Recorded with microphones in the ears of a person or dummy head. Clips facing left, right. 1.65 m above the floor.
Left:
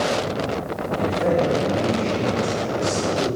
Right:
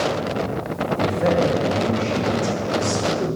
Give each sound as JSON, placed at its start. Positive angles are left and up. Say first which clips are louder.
{"t": 1.0, "sound": "a man speaking", "louder": "right 1 dB", "side_deg": -25, "distance_m": 3.0}